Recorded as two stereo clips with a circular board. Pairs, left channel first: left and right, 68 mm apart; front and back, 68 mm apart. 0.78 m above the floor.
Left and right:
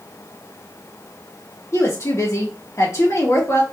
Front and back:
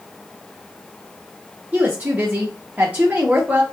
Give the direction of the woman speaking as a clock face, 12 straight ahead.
8 o'clock.